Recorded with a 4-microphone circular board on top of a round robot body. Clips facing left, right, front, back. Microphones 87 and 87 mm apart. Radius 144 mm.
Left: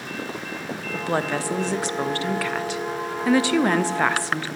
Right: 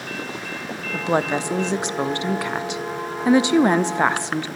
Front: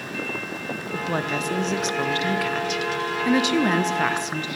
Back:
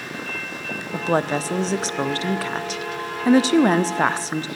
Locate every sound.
0.9 s a woman speaking: 150° right, 0.6 m